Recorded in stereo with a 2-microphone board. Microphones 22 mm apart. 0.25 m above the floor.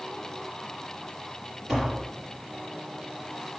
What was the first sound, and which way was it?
Tapping, 10° right (ahead or behind).